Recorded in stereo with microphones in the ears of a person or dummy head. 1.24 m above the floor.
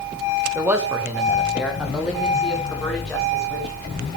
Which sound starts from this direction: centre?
A man speaking, at 0.6 s.